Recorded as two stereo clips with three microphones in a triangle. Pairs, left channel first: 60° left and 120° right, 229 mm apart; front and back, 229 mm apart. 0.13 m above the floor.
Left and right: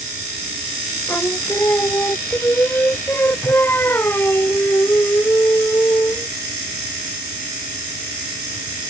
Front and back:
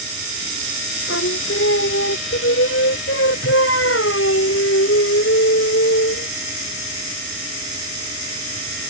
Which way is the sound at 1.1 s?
20° right.